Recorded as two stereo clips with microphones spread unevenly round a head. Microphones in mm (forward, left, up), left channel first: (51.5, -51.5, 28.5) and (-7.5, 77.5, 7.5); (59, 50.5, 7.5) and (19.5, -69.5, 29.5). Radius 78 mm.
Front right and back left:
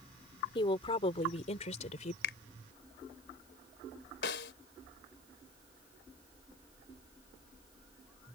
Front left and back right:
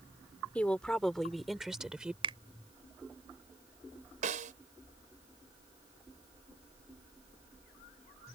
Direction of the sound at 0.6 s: 10° right.